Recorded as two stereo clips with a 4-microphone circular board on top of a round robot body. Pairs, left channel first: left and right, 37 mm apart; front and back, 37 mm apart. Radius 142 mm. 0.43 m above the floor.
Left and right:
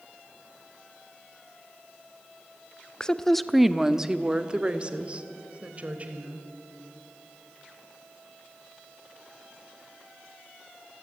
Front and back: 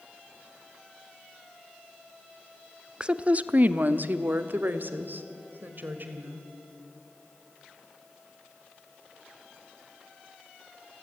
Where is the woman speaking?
140° left, 0.9 m; by 6.4 s 145° right, 2.5 m.